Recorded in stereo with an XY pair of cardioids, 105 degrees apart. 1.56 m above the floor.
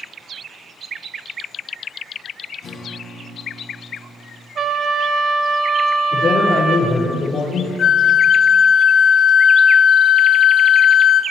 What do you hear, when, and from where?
2.6 s a guitar: 55° left, 3 m
4.5 s a trumpet: 55° right, 2 m
6.1 s a man speaking: 50° left, 4.5 m
7.8 s a flute: 45° left, 0.7 m